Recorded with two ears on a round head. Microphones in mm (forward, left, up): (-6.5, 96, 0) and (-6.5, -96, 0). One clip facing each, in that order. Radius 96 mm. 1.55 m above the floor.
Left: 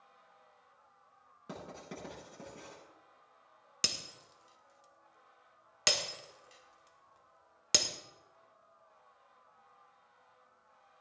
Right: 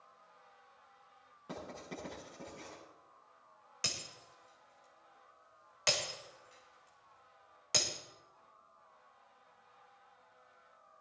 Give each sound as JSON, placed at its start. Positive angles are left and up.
{"t": 1.5, "sound": "writing", "side_deg": 25, "distance_m": 10.0}
{"t": 3.8, "sound": "breaking glass", "side_deg": 50, "distance_m": 1.9}